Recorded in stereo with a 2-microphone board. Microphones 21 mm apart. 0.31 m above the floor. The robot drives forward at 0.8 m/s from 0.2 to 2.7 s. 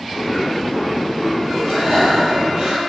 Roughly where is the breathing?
Right.